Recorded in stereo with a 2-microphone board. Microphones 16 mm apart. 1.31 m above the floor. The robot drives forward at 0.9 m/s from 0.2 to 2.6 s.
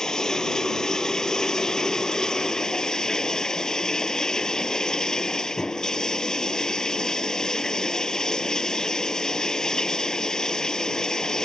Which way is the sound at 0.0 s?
30° left (ahead or behind).